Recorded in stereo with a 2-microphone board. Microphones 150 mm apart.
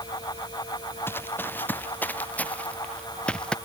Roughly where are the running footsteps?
Centre.